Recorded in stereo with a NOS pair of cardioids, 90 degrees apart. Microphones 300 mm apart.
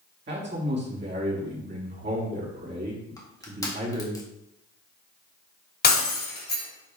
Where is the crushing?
10° left, 1.8 m.